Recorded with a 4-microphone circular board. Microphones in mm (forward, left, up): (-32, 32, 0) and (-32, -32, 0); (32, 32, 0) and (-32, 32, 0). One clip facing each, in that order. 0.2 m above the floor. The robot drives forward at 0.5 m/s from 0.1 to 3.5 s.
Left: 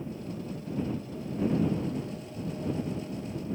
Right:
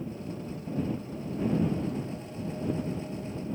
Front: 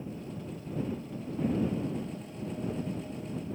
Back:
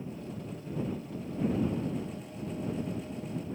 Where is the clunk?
I don't hear a clunk.